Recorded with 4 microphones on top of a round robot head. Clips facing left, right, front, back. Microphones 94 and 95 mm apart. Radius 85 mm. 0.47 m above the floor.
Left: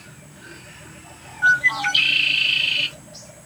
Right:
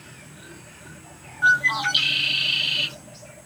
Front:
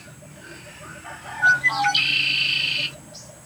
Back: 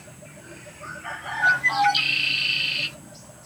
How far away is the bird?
About 0.5 m.